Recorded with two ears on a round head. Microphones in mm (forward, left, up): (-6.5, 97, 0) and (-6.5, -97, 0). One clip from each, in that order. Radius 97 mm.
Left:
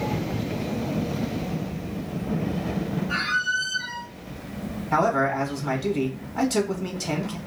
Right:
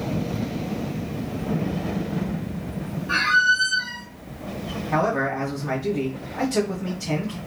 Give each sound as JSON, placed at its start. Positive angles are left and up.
{"t": 3.1, "sound": "a squeak", "side_deg": -75, "distance_m": 1.3}
{"t": 4.9, "sound": "a man speaking", "side_deg": 65, "distance_m": 1.1}